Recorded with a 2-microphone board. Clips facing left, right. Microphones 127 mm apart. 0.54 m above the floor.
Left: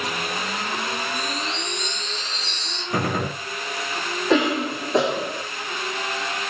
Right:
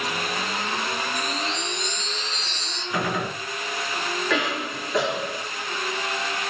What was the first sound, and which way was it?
A chime, 70° left (ahead or behind).